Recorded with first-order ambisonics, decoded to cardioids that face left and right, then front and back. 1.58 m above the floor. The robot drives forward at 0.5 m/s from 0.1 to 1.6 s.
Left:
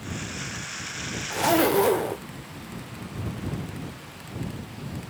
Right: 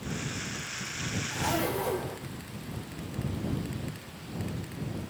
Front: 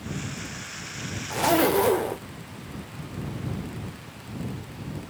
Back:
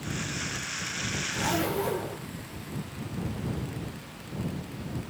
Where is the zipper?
40° left, 0.8 m; by 2.2 s 45° left, 0.7 m.